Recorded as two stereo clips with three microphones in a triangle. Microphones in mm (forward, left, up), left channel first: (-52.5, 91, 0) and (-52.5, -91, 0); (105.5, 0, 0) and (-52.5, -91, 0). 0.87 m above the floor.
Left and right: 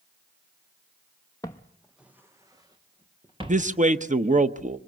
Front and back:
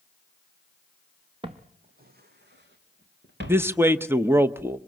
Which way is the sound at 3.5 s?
80° right.